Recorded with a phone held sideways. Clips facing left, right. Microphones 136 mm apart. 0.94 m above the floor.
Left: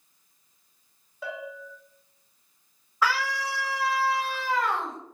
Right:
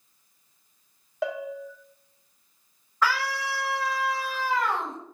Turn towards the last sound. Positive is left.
turn(degrees=5)  # may be behind; listen again after turning